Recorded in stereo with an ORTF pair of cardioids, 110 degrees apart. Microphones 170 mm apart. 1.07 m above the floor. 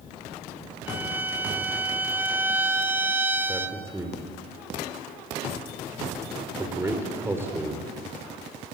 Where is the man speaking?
15° right, 4.5 m.